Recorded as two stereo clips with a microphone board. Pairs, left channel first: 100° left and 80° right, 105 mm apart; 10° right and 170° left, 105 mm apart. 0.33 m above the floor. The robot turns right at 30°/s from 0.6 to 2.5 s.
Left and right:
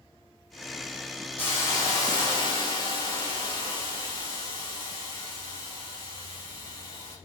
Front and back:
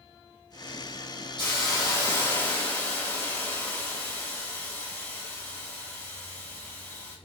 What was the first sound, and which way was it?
A hiss, 30° left.